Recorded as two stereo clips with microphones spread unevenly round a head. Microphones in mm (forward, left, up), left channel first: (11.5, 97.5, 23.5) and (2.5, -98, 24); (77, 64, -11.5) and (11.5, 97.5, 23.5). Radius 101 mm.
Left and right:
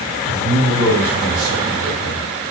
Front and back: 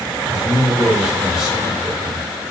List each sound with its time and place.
0.3 s a man speaking: 105° right, 4.5 m